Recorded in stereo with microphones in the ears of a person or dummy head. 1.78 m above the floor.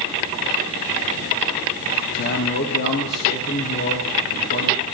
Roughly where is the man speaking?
Left.